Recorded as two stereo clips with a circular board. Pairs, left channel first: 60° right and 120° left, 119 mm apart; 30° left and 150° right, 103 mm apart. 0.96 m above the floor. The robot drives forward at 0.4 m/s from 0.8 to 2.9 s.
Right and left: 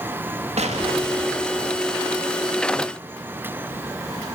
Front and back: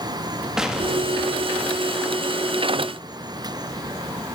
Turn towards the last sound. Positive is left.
turn(degrees=145)